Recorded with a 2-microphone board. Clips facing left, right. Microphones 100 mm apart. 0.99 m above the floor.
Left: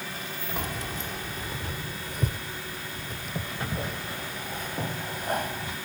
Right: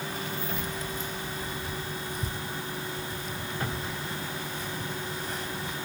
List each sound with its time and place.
0.6 s keys jangling: 75° left (ahead or behind); by 5.8 s 60° left (ahead or behind)